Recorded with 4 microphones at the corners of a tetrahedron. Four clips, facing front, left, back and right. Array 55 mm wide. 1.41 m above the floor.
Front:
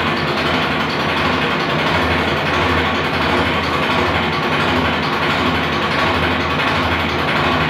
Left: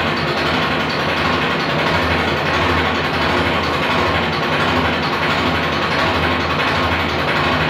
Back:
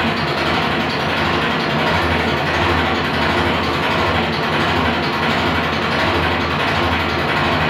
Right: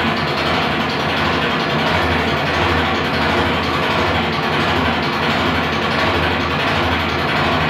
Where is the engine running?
30° left, 1.0 m.